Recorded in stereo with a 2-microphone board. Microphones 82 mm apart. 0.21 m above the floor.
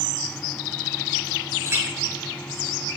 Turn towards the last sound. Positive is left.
turn(degrees=-35)  # may be behind; listen again after turning